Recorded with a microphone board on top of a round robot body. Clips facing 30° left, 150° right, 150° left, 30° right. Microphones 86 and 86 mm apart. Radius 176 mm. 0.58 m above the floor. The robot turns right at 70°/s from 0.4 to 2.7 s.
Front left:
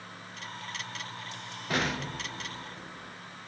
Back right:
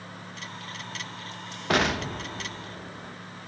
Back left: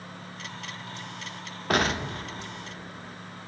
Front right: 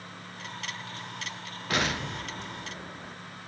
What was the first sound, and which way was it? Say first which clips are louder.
An explosion: back right 6 dB, back left 4 dB; 170° right.